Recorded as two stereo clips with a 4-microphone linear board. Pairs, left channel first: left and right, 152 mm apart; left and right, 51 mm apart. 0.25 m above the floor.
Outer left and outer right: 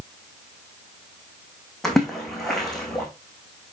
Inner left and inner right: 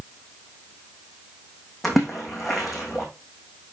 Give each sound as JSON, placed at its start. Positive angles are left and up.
{"t": 1.8, "sound": "a splash", "side_deg": 0, "distance_m": 2.5}